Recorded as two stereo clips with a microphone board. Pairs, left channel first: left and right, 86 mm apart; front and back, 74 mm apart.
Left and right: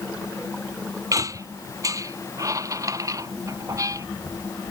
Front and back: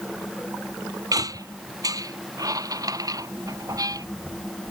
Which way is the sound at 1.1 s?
140° right.